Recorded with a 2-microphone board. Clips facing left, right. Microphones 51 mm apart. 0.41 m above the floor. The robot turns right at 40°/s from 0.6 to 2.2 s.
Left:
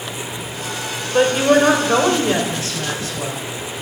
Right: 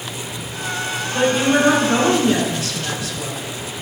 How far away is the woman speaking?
About 1.9 m.